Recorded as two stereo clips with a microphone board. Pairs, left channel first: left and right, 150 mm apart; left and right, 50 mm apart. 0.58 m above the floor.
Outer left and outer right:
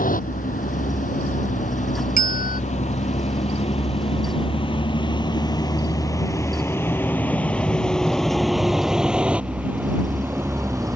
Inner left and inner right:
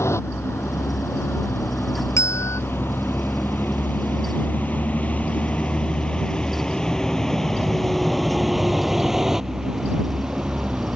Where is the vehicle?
65° left (ahead or behind); by 11.0 s 20° right (ahead or behind).